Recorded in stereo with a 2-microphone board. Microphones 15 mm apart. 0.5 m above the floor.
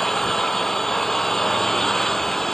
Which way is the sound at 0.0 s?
20° left (ahead or behind).